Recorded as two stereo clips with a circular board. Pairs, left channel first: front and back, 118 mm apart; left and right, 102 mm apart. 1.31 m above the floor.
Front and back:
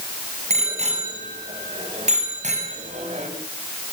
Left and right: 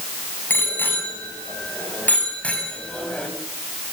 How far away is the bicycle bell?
About 7 m.